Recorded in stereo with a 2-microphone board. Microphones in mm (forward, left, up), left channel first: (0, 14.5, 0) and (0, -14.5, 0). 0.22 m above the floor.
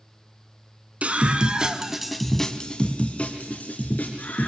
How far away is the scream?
About 2.5 m.